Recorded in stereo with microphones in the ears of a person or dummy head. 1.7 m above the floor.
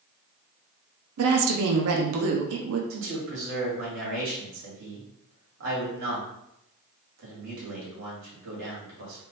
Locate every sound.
1.2 s a woman speaking: 75° right (ahead or behind), 0.6 m
2.9 s a man speaking: 65° right (ahead or behind), 1.9 m